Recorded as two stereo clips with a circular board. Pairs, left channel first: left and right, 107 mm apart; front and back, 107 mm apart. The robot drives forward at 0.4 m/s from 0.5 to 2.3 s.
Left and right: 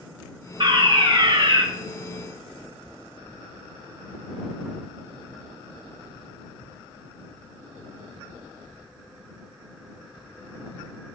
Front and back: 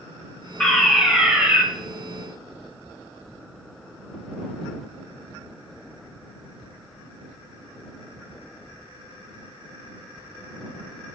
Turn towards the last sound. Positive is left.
turn(degrees=-125)